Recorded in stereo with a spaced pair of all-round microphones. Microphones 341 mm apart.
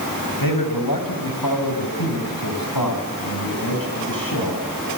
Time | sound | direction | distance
0.4 | a man speaking | 80° left | 6.5 m